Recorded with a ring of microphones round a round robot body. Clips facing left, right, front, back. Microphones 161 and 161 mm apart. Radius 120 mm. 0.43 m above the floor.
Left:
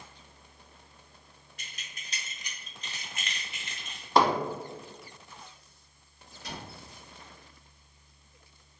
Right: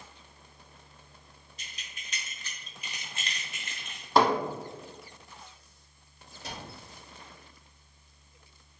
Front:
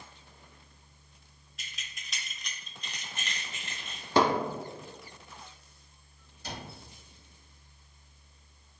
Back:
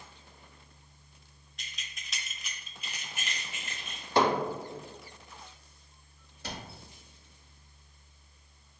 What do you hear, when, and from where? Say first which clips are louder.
1.6 s keys jangling: left 1 dB, even; 85° left, 0.8 m; by 4.1 s 100° right, 0.9 m
4.2 s hammering: right 1 dB, front 1 dB; straight ahead, 0.9 m
6.4 s a cupboard door: even, even; 155° right, 0.7 m